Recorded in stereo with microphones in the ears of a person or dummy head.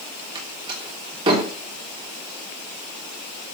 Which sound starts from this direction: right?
A door slam, at 0.3 s.